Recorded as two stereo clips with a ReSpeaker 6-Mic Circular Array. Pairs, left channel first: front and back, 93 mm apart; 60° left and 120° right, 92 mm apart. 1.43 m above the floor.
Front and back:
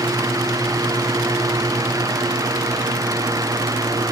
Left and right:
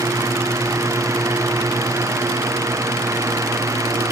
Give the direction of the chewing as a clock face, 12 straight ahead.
I don't hear chewing.